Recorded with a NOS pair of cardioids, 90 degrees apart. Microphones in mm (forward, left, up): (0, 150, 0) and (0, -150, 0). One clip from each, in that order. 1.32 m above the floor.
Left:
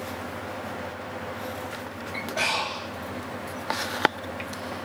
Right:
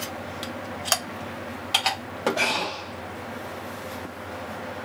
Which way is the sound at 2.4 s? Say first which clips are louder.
Left 2 dB; 15° right.